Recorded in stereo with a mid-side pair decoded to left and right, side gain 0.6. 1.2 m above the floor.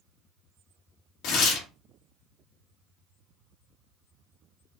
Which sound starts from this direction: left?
Tearing paper, at 1.2 s.